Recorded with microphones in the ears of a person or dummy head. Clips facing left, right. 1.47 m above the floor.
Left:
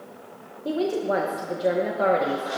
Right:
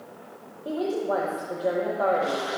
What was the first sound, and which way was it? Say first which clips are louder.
A woman speaking: left 2 dB; 30° left (ahead or behind).